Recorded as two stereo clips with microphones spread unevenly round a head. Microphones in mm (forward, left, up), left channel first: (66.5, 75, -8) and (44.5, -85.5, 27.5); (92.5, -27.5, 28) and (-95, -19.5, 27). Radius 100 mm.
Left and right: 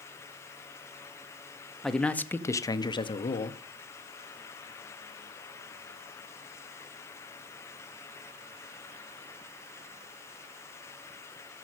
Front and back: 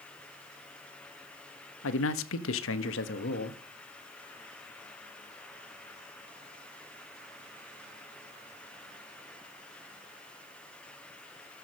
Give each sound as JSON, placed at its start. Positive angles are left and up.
{"t": 1.8, "sound": "a man speaking", "azimuth_deg": -5, "distance_m": 1.3}